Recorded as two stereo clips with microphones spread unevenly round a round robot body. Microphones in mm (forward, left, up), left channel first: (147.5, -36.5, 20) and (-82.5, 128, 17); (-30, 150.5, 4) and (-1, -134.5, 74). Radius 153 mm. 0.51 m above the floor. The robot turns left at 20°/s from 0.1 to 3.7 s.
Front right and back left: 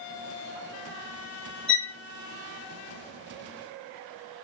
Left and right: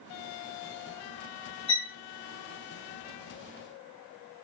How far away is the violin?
About 1.4 m.